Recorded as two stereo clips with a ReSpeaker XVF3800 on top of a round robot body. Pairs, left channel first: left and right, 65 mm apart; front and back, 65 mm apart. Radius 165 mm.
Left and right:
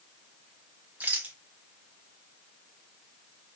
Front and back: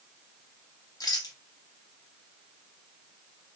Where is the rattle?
25° right, 0.6 m.